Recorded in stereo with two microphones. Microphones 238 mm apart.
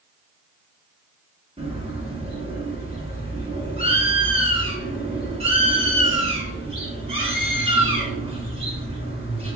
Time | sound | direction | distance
1.6 | a bird | 25° right (ahead or behind) | 1.3 m